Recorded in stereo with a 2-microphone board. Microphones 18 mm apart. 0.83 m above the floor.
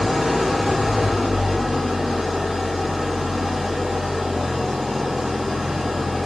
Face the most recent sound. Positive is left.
turn(degrees=-30)  # may be behind; listen again after turning